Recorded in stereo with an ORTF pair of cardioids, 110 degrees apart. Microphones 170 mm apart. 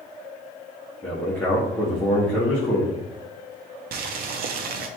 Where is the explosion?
No explosion in this recording.